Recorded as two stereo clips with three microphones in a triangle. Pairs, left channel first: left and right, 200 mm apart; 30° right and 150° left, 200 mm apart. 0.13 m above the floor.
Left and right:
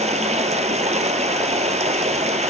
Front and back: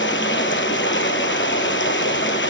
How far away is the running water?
About 1.0 m.